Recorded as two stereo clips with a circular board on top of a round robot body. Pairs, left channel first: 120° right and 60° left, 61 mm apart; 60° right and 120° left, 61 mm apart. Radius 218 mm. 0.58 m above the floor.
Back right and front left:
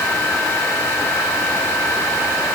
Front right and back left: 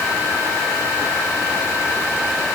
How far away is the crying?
No crying in this recording.